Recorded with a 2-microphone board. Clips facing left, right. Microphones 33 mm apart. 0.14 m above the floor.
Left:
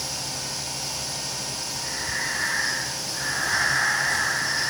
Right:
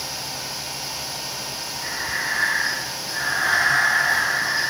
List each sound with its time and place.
1.8 s breathing: 70° right (ahead or behind), 4.5 m